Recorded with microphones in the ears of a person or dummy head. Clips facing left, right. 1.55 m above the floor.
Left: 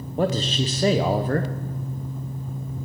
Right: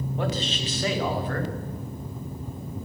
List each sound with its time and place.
0.2 s a man speaking: 35° left (ahead or behind), 0.6 m